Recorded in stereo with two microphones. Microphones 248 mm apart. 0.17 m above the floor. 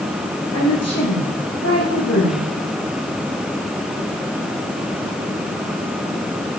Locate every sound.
0.5 s a woman speaking: 80° left, 10 m